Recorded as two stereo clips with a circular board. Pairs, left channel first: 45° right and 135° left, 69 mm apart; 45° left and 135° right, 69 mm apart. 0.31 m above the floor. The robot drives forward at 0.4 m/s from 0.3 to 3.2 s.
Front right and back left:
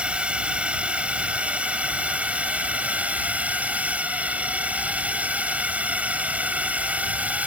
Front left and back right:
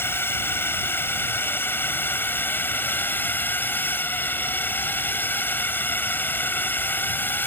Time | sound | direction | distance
0.0 | a drone | 70° left | ?